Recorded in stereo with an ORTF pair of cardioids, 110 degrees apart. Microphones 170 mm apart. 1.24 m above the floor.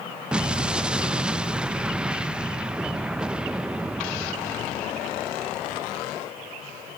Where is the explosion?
5° right, 0.9 m.